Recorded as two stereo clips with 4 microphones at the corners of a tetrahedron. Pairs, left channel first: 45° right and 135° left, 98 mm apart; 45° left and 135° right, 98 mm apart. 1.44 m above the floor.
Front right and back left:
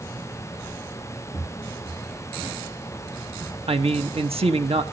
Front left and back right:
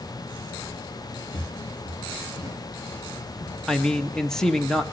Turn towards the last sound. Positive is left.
turn(degrees=130)